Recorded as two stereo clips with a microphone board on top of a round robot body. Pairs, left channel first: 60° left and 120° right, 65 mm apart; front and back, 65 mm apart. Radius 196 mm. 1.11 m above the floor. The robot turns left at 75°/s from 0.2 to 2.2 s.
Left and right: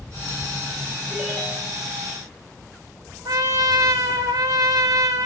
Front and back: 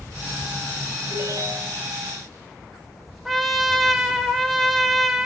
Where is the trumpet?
90° right, 0.8 m.